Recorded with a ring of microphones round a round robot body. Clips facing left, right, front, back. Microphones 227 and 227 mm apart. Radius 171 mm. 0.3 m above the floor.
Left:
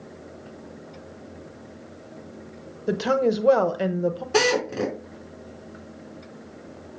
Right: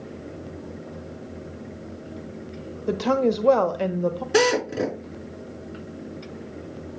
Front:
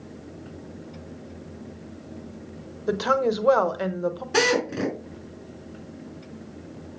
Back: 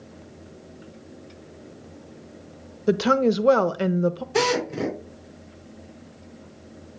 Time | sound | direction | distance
2.9 | a woman speaking | 165° left | 1.0 m
4.3 | a drill | 15° right | 5.5 m